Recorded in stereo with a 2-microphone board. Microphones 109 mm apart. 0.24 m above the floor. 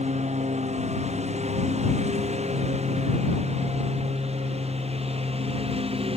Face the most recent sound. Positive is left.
turn(degrees=-60)  # may be behind; listen again after turning